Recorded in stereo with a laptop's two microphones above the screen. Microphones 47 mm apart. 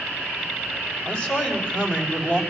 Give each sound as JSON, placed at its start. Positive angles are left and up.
{"t": 1.1, "sound": "a man speaking", "side_deg": 20, "distance_m": 5.5}